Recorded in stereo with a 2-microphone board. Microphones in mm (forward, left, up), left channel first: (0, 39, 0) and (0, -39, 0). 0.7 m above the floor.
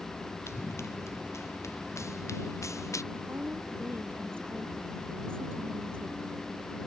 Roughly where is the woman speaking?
Right.